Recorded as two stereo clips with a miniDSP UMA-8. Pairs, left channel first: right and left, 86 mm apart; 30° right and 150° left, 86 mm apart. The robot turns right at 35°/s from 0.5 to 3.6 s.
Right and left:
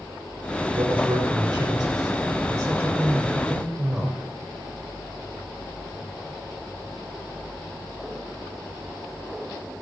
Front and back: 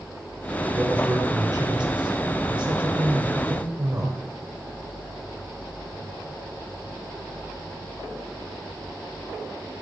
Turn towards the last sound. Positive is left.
turn(degrees=180)